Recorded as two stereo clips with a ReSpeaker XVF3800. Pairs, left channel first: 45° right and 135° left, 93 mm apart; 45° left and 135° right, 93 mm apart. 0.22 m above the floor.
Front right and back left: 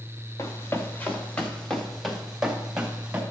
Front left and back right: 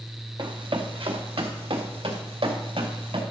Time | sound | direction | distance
0.4 | running footsteps | 100° right | 2 m